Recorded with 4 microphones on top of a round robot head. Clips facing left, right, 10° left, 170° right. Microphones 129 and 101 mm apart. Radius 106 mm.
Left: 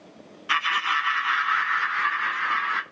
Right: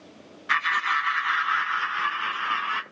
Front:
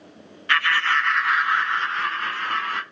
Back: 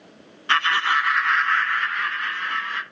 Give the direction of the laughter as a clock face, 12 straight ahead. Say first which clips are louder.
Even, back 1 dB; 7 o'clock.